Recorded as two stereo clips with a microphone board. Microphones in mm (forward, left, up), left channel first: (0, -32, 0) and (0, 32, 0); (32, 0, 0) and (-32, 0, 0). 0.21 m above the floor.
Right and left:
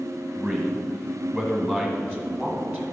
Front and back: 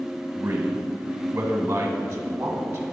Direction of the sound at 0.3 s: 155° left.